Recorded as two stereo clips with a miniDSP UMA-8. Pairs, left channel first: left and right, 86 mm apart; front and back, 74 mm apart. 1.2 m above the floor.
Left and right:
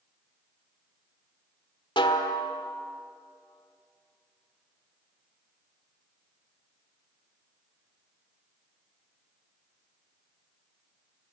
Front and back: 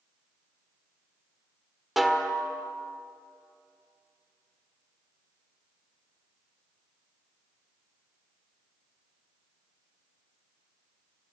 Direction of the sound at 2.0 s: 90° left.